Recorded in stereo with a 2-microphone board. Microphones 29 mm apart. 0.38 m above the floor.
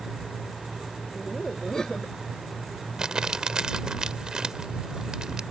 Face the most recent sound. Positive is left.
turn(degrees=-25)  # may be behind; listen again after turning